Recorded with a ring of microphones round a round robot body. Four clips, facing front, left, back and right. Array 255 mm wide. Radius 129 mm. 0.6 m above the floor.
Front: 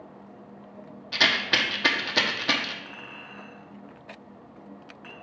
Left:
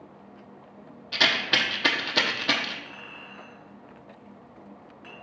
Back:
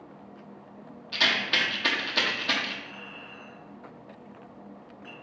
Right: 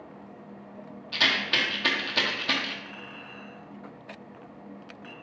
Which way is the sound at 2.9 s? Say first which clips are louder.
Right 1 dB, front 1 dB; 10° right.